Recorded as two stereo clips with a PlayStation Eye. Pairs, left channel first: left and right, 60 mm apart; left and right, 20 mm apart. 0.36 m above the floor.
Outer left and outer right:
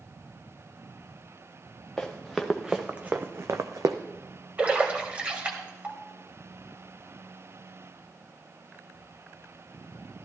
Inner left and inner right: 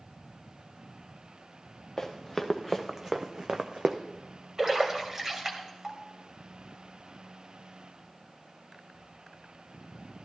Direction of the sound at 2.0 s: 5° left (ahead or behind).